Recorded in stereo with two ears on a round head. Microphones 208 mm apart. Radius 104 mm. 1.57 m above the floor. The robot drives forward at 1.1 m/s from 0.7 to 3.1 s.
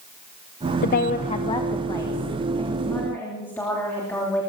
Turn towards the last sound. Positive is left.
turn(degrees=10)  # may be behind; listen again after turning